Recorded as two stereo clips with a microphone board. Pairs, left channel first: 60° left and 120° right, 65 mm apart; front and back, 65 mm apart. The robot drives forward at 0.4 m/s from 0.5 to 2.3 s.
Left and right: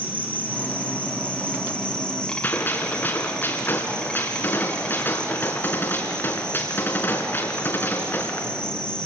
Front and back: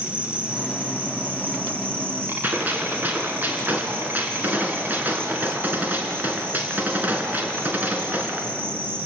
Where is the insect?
115° left, 2.5 m; by 9.1 s 130° left, 2.5 m.